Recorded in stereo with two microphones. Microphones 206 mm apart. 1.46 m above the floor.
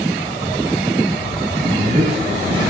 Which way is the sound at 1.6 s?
40° right (ahead or behind).